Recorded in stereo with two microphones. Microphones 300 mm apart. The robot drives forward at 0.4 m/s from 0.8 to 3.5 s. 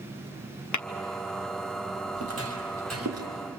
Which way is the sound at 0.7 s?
80° left.